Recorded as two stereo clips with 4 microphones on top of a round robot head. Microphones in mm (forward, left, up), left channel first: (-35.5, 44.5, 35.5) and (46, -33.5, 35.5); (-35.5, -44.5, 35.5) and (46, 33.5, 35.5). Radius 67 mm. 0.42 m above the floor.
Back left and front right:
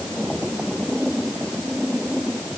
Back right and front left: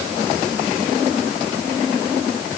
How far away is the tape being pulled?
No tape being pulled in this recording.